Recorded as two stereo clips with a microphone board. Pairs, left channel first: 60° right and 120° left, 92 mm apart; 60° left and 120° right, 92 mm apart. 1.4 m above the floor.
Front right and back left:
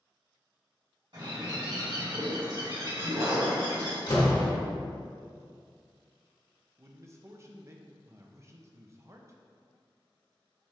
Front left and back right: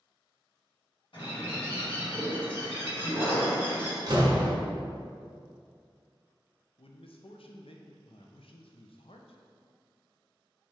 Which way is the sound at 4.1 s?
95° right.